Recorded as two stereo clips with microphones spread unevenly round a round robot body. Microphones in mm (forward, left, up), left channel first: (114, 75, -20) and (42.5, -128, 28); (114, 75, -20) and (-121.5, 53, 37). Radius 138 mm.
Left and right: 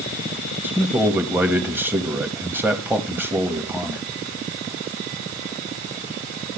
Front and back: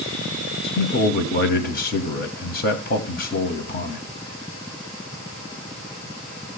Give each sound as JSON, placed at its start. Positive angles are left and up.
{"t": 0.6, "sound": "a man speaking", "azimuth_deg": -20, "distance_m": 1.4}